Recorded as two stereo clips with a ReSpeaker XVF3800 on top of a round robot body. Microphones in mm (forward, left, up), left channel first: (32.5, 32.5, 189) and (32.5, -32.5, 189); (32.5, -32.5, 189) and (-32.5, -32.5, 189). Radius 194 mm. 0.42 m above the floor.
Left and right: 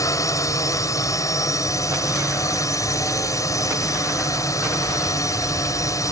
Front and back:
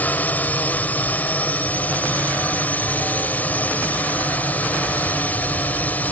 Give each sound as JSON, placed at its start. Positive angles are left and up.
{"t": 0.0, "sound": "a drone", "azimuth_deg": 65}